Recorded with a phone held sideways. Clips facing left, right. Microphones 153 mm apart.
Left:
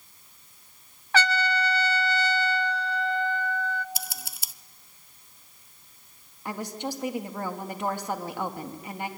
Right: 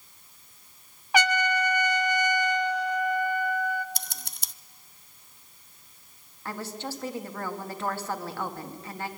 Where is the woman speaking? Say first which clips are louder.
Left 3 dB; 15° left (ahead or behind), 2 m.